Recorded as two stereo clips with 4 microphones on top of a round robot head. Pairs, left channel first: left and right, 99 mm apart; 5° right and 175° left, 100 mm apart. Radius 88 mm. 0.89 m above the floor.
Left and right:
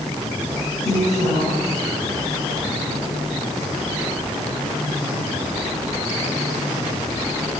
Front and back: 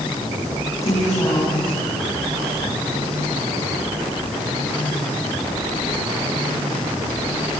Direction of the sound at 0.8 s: 55° left.